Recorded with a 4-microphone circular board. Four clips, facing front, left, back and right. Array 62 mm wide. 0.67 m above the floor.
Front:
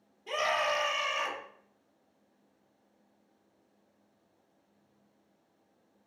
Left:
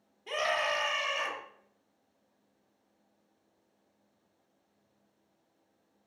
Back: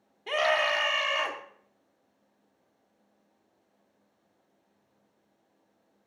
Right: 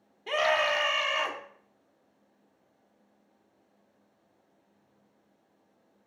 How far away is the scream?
About 1.7 m.